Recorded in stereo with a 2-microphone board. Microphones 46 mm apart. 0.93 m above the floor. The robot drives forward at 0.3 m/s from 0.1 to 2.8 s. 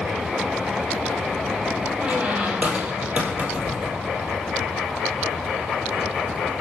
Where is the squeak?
30° right (ahead or behind), 3 m; by 4.1 s 35° right (ahead or behind), 3 m.